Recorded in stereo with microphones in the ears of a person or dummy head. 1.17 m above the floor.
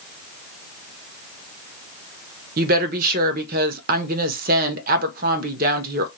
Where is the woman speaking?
50° right (ahead or behind), 0.8 m.